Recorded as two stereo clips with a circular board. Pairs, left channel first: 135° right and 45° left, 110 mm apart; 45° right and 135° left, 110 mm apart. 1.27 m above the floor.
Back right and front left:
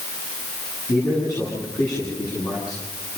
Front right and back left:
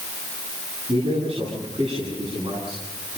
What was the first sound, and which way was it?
A man speaking, 170° left.